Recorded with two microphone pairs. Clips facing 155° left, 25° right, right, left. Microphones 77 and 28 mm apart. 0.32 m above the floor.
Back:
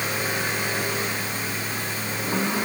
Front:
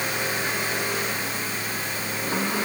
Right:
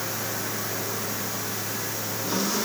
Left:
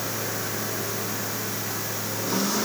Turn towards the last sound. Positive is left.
No sound to turn to.